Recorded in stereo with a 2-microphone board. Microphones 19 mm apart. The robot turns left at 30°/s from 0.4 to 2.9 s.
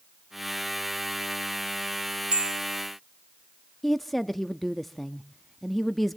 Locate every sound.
2.3 s a bell: 60° right (ahead or behind), 0.5 m; by 2.6 s 50° right (ahead or behind), 0.5 m
3.8 s a woman speaking: 5° left (ahead or behind), 0.6 m